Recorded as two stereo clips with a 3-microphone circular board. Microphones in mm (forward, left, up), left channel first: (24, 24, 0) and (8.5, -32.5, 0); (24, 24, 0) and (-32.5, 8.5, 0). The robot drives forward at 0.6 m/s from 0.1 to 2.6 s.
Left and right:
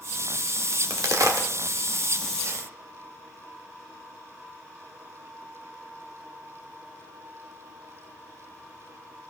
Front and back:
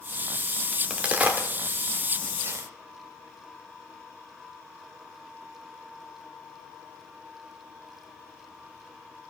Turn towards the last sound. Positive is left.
turn(degrees=-135)